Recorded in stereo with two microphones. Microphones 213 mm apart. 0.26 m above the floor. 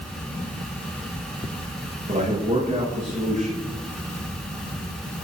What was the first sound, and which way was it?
A man speaking, 35° right (ahead or behind).